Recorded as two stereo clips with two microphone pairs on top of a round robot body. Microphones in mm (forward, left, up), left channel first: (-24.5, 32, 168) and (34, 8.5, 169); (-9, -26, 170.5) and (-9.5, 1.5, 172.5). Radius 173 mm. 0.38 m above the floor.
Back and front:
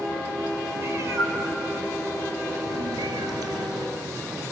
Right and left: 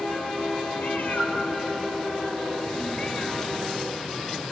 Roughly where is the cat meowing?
Right.